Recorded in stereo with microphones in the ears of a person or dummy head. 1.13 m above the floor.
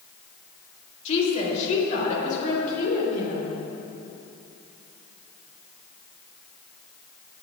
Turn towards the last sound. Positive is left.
turn(degrees=55)  # may be behind; listen again after turning